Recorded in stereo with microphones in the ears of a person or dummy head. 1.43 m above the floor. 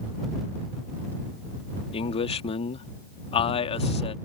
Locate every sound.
1.9 s a man speaking: 35° left (ahead or behind)